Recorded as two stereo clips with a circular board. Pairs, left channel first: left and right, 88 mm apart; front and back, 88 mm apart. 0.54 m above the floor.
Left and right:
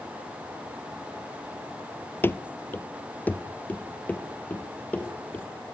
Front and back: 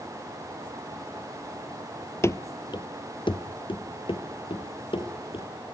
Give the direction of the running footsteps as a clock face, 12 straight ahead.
11 o'clock.